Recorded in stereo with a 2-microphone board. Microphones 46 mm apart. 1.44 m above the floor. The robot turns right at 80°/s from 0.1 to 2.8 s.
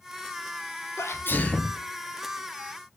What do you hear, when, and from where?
1.0 s a sneeze: 105° left, 0.9 m; by 1.8 s 170° left, 0.9 m